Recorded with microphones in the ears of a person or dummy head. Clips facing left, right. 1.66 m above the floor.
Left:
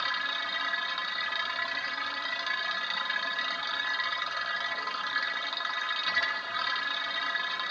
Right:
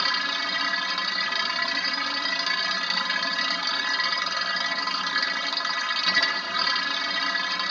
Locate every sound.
0.0 s a machine running: 65° right (ahead or behind)